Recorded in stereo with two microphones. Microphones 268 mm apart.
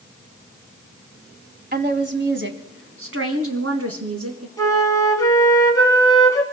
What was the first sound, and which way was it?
A woman speaking, 35° right (ahead or behind).